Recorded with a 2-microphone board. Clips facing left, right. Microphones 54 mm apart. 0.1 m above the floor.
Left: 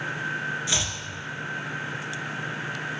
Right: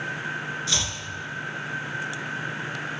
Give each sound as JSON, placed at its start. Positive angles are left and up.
{"t": 0.7, "sound": "chopping", "side_deg": 20, "distance_m": 0.9}